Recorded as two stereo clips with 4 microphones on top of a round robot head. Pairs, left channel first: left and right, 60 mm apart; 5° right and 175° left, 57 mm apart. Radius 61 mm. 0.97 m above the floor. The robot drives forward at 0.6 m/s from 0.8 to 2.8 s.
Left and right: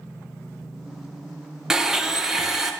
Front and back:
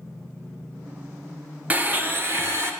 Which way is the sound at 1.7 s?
165° right.